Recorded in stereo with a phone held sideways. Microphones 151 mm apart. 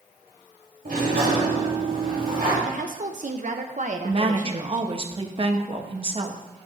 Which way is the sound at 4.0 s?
40° right (ahead or behind).